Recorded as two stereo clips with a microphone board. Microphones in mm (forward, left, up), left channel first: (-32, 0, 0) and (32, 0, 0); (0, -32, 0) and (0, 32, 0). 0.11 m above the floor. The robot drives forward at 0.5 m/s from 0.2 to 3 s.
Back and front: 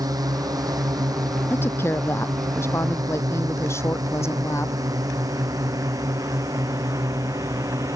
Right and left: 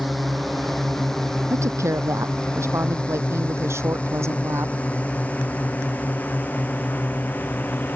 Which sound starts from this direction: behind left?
A woman speaking, at 1.5 s.